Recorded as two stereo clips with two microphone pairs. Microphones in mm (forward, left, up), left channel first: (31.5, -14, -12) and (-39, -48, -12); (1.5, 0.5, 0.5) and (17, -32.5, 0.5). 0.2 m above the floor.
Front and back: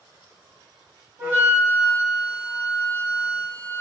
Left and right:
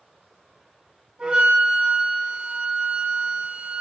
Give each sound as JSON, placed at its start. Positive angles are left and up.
{"t": 1.2, "sound": "a flute", "azimuth_deg": -110, "distance_m": 1.5}